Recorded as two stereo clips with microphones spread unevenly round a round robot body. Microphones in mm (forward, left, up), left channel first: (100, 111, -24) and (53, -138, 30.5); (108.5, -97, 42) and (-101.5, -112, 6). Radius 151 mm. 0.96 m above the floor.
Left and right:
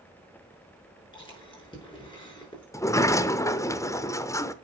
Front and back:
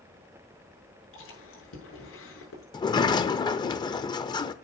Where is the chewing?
5° left, 6 m.